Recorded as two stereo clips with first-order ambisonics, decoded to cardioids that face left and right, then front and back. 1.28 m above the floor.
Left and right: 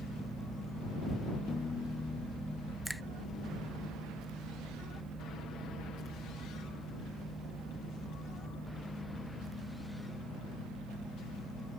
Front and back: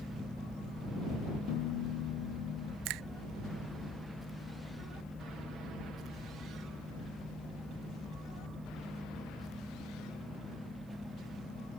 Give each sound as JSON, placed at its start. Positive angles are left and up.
{"t": 1.5, "sound": "a piano", "azimuth_deg": 15}
{"t": 2.9, "sound": "a finger snap", "azimuth_deg": 180}